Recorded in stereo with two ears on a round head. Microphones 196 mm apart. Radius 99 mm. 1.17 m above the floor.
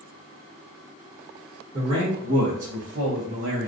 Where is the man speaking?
25° right (ahead or behind), 1.6 m; by 3.7 s 55° right (ahead or behind), 0.8 m.